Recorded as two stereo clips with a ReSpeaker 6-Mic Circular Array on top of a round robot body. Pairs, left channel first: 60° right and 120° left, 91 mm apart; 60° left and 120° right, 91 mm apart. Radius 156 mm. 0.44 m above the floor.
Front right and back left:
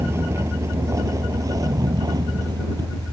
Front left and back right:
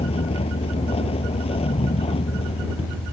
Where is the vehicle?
55° left; by 3.1 s 75° left.